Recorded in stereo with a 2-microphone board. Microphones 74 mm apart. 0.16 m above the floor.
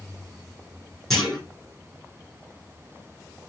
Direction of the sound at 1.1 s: Centre (ahead or behind).